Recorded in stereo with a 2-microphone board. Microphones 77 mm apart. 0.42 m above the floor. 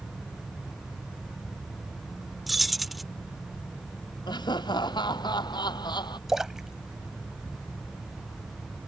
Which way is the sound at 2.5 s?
Centre (ahead or behind).